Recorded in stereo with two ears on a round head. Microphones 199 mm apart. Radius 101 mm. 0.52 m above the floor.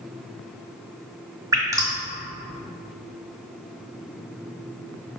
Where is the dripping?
15° right (ahead or behind), 1.7 m.